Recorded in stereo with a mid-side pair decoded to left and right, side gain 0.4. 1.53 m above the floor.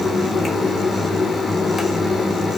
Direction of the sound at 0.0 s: 50° left.